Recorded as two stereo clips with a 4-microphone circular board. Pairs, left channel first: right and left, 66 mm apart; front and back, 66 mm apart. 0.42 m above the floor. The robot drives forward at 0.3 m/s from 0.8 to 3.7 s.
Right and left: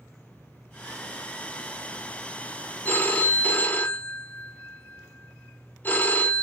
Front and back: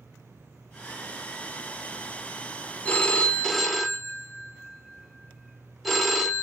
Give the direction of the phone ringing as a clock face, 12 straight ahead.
2 o'clock.